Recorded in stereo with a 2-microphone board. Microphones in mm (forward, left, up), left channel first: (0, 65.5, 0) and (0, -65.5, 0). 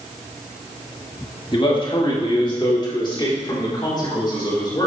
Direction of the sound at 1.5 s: 40° left (ahead or behind).